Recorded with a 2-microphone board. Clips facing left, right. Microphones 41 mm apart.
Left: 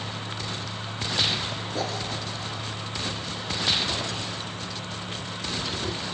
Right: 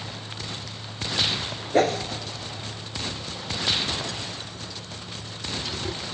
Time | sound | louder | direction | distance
1.7 | a whoosh | right 11 dB | 55° right (ahead or behind) | 1.0 m